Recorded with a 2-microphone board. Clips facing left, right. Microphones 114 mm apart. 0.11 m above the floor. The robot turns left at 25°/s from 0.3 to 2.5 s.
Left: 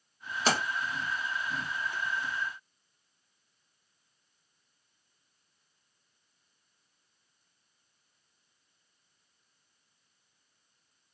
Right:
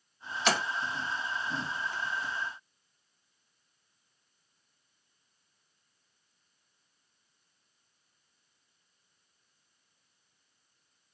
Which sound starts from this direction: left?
A splash, at 0.5 s.